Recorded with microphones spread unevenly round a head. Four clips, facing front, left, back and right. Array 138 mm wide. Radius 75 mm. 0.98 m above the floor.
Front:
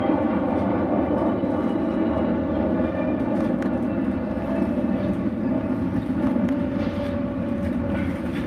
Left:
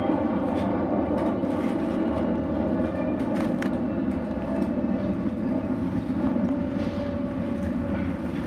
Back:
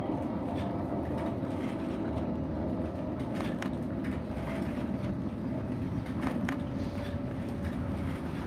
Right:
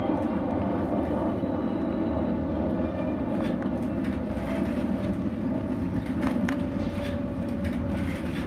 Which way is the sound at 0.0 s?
15° left.